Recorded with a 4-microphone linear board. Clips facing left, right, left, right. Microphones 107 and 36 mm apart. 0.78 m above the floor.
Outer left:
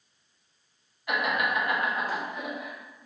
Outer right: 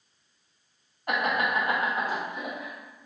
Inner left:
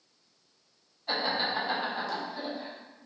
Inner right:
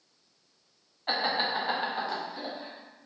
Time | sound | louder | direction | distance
1.1 | laughter | outer right 1 dB, inner right 1 dB | 45° right (ahead or behind) | 0.9 m